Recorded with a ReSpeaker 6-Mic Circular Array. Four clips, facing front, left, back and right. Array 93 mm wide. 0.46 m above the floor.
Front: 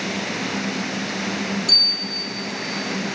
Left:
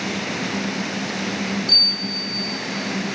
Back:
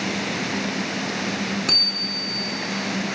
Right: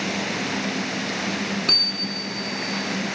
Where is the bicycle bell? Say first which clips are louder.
Left 1 dB, back 1 dB; 135° right, 3 m.